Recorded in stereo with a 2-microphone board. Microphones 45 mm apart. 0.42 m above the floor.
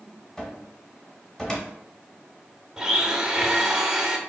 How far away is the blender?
About 0.6 m.